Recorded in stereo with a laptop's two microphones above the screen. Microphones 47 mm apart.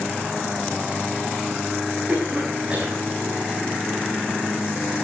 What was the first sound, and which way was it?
A cough, 25° right (ahead or behind).